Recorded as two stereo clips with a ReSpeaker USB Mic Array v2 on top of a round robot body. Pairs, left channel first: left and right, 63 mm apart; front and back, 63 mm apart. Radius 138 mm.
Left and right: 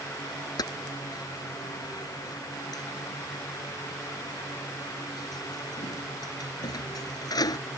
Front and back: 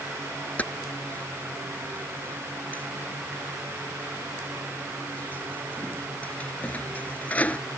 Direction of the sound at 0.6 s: 70° left.